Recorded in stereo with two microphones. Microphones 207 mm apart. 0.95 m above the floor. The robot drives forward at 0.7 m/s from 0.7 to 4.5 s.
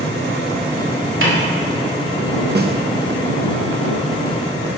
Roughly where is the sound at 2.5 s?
Right.